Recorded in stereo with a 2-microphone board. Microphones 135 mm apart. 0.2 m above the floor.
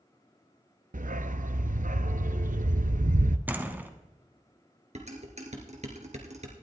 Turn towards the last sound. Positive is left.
turn(degrees=-55)  # may be behind; listen again after turning